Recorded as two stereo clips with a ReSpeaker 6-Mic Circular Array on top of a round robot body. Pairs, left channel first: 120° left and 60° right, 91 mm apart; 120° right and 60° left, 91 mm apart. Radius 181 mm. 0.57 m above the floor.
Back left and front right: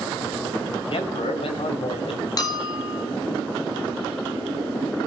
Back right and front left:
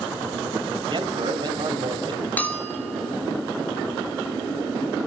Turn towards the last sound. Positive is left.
turn(degrees=170)